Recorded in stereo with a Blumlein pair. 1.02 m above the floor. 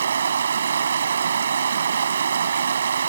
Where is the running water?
70° right.